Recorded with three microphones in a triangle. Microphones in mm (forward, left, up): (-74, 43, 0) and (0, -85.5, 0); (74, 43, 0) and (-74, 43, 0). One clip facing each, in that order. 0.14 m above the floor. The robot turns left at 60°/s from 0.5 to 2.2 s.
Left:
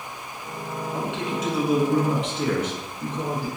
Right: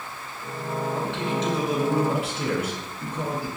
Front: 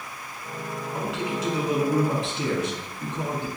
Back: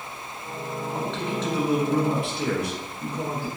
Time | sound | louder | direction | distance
0.9 | a man speaking | left 2 dB, front 1 dB | 85° left | 1.2 m